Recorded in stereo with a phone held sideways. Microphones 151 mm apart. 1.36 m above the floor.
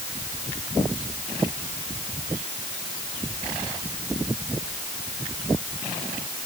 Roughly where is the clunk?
I don't hear a clunk.